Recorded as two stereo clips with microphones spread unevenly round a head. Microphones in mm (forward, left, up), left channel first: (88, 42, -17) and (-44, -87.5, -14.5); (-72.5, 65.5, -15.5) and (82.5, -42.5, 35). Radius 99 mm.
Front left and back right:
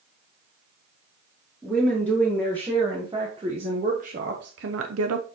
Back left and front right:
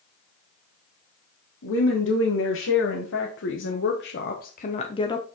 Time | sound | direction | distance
1.6 | a woman speaking | 140° left | 2 m